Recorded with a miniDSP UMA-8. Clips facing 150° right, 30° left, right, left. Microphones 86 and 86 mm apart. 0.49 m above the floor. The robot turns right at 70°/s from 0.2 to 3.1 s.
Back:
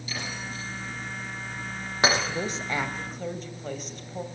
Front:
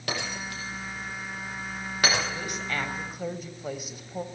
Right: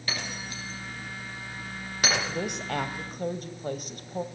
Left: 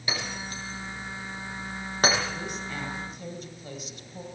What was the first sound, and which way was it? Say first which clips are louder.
Breaking glass: front 3 dB, left 2 dB; 15° left.